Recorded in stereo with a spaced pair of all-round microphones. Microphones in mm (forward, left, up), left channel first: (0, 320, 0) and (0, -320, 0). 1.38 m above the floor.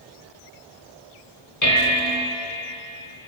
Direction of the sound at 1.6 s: 30° left (ahead or behind).